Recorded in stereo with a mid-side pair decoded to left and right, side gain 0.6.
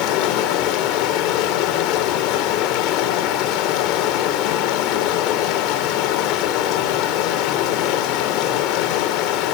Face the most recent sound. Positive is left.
turn(degrees=65)